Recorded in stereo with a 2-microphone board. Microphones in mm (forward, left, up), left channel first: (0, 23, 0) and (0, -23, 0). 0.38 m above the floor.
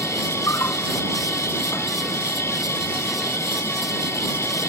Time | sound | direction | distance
0.0 | an insect | 80° left | ?